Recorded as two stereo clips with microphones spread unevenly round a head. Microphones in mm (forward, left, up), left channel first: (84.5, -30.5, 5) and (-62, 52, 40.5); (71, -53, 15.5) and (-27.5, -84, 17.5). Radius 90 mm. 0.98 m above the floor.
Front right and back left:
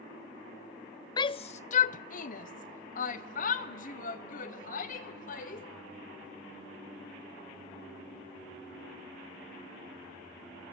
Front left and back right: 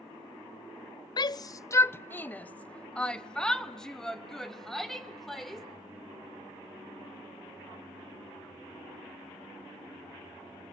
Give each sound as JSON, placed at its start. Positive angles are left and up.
{"t": 1.2, "sound": "a shout", "azimuth_deg": 10, "distance_m": 0.5}